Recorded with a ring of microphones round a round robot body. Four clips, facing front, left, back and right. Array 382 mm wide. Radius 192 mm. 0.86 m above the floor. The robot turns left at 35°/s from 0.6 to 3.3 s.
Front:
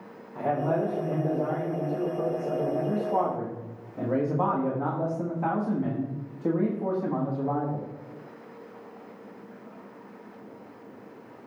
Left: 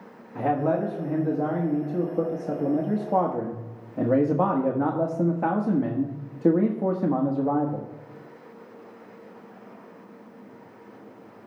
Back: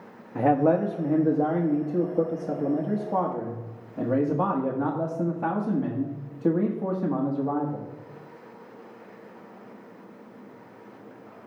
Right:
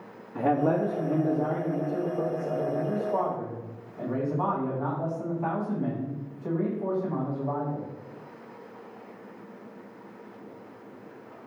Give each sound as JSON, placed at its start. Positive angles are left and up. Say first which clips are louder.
{"t": 0.3, "sound": "a man speaking", "louder": "even, back 5 dB", "azimuth_deg": -170, "distance_m": 1.4}